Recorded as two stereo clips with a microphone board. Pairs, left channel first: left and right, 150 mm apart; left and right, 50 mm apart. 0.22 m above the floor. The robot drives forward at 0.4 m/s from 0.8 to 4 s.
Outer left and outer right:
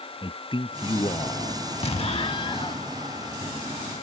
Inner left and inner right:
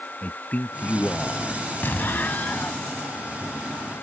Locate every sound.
0.2 s a man speaking: 35° left (ahead or behind); by 1.7 s 40° left (ahead or behind)
1.8 s an explosion: 45° left (ahead or behind); by 2.9 s 30° left (ahead or behind)